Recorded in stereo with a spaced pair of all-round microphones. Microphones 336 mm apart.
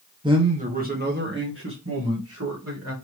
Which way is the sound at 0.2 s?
15° right (ahead or behind).